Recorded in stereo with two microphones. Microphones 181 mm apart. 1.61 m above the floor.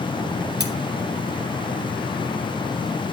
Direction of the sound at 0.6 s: 65° right (ahead or behind).